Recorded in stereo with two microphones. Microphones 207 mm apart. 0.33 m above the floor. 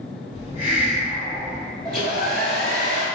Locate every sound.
0.3 s a hiss: 35° right (ahead or behind), 1.6 m
1.9 s a hair dryer: 45° right (ahead or behind), 0.9 m